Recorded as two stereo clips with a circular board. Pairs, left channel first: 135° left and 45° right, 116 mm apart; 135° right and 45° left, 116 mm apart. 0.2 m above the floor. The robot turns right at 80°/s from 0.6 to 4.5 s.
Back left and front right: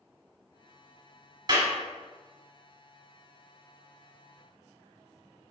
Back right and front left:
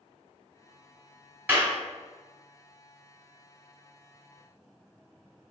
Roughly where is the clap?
Ahead.